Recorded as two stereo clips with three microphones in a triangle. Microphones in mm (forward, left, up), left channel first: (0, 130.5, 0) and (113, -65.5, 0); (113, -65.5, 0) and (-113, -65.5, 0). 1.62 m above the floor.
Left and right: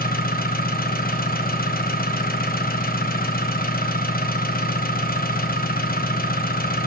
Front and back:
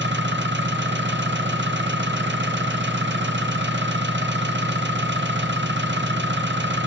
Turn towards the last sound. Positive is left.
turn(degrees=160)